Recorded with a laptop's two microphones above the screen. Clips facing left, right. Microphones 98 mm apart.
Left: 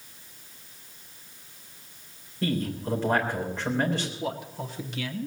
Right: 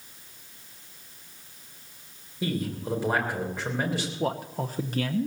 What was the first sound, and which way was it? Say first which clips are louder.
A man speaking: left 1 dB; 10° right (ahead or behind).